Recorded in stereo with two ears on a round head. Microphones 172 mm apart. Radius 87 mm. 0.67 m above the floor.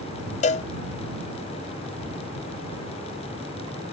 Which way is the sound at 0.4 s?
35° left (ahead or behind).